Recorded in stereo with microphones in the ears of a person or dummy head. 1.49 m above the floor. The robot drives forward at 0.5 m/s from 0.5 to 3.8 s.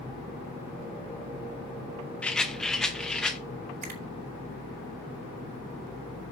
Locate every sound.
2.2 s a rattle: 5° left (ahead or behind), 0.9 m; by 3.4 s centre (ahead or behind), 1.4 m
3.8 s a finger snap: 50° right (ahead or behind), 6.5 m